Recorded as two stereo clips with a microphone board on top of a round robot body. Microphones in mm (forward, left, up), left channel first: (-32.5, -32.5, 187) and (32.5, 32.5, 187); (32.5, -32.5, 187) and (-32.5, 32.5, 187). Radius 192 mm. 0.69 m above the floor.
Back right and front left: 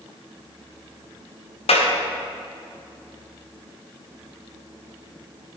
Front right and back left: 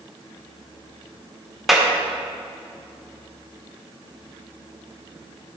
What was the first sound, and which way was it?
A clap, 135° right.